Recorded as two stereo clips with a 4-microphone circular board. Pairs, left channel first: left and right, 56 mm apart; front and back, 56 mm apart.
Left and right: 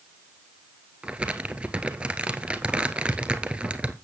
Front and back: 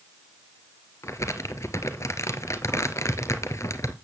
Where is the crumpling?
20° right, 1.4 m.